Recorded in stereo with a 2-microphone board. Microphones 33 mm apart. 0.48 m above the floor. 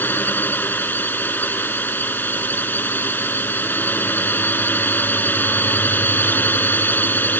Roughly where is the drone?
Left.